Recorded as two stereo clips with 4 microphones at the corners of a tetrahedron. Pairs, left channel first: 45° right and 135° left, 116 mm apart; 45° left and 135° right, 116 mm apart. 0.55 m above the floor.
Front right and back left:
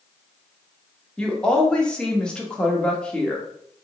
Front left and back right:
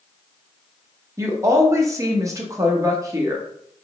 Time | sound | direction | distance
1.2 | a woman speaking | 115° right | 0.6 m